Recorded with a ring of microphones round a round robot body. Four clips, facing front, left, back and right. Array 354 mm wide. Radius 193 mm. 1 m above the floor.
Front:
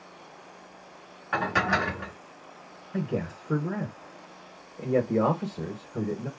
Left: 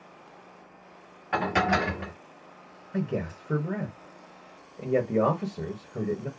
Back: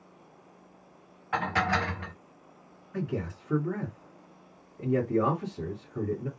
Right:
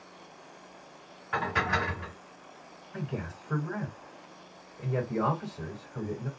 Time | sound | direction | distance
1.3 | dishes clattering | 60° left | 1.0 m
2.9 | a man speaking | 50° left | 1.4 m